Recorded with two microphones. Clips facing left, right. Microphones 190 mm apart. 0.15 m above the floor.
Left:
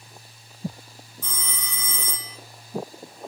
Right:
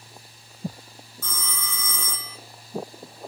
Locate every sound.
1.2 s a phone ringing: 15° left (ahead or behind), 0.7 m